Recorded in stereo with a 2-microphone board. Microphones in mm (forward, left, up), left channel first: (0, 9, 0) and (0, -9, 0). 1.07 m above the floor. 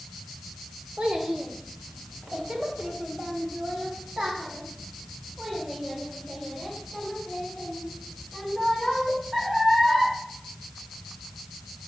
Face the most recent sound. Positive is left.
turn(degrees=-20)  # may be behind; listen again after turning